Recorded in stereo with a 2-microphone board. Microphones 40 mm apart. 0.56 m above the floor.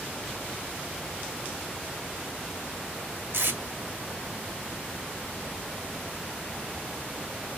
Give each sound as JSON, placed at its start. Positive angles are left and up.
{"t": 3.3, "sound": "tape being pulled", "side_deg": -75, "distance_m": 1.0}